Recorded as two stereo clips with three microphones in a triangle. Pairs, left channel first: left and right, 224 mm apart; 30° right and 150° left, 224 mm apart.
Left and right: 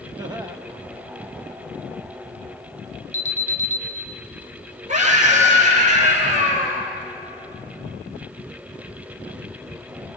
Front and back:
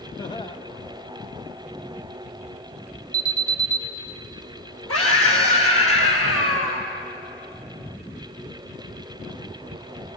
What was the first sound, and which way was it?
Laughter, 55° right.